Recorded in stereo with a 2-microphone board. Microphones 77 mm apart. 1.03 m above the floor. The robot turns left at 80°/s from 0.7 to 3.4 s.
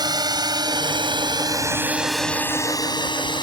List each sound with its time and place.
0.0 s a drone: 60° right (ahead or behind); by 3.4 s 75° left (ahead or behind)